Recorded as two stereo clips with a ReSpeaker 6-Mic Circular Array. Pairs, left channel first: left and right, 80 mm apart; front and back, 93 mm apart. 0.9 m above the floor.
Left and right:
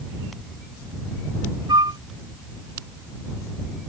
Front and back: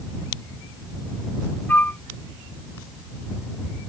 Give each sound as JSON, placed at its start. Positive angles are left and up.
{"t": 1.7, "sound": "a flute", "azimuth_deg": -70}